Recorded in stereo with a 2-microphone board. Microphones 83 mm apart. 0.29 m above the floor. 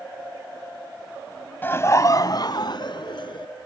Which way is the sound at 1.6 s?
25° left (ahead or behind).